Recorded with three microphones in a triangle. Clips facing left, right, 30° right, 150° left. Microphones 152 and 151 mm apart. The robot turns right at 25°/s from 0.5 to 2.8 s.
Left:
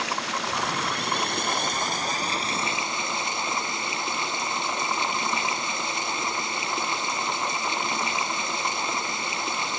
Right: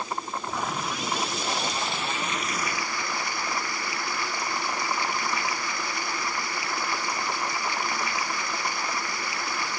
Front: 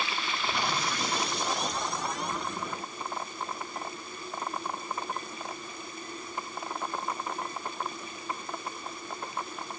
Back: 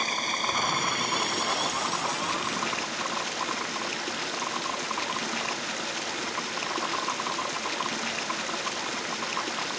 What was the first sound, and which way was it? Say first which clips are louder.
Running water: left 2 dB, back 2 dB; 100° left.